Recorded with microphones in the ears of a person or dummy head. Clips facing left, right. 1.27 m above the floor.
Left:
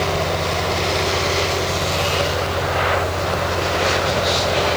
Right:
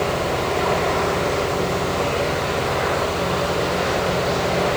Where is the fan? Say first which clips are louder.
Even; 50° right (ahead or behind), 2.5 m.